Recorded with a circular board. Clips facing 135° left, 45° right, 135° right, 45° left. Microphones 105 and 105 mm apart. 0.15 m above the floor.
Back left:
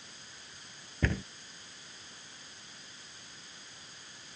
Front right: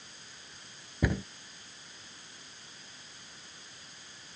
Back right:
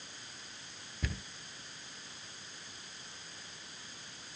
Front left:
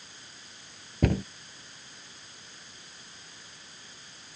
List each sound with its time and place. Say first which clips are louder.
1.0 s a cupboard door: front right 2 dB, front left 16 dB; 30° left